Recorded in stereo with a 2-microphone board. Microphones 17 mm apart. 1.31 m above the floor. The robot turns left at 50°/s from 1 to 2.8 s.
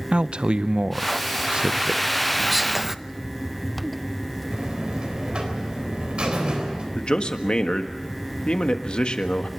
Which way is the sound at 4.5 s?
65° right (ahead or behind).